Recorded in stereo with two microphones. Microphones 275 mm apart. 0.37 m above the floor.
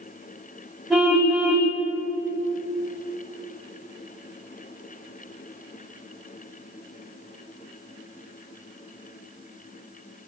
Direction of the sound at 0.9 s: Centre (ahead or behind).